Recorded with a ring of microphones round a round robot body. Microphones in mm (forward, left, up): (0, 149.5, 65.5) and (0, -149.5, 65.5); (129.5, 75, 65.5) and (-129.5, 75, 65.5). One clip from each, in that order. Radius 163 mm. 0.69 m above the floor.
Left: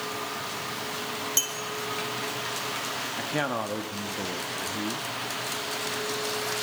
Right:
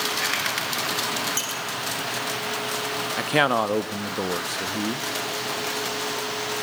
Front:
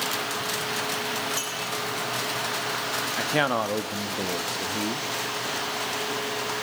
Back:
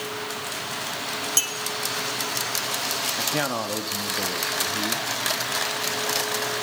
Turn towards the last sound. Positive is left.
turn(degrees=-65)